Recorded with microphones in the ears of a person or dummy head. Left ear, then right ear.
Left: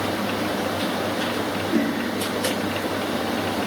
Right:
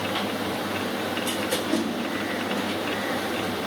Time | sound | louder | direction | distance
1.7 | a whoosh | left 3 dB | 75° right (ahead or behind) | 1.6 m